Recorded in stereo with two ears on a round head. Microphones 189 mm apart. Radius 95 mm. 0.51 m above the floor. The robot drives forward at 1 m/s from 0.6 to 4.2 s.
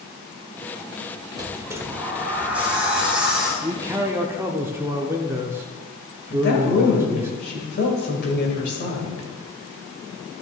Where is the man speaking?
15° right (ahead or behind), 0.6 m; by 7.3 s 10° right (ahead or behind), 0.8 m.